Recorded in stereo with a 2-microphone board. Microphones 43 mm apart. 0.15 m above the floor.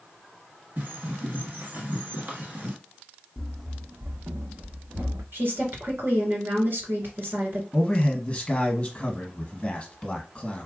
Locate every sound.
0.8 s a bird: 40° right (ahead or behind), 1.7 m
3.4 s running footsteps: 20° left (ahead or behind), 0.6 m; by 5.2 s 80° right, 1.8 m
5.3 s a woman speaking: 55° right (ahead or behind), 1.9 m
7.7 s a man speaking: 25° left (ahead or behind), 1.1 m